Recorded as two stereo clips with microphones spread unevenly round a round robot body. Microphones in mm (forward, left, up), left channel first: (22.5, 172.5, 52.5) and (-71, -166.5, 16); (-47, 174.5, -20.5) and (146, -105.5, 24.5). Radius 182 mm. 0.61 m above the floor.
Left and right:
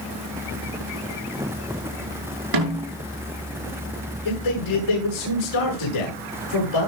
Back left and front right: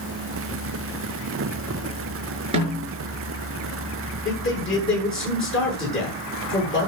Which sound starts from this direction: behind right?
A snare drum, at 2.5 s.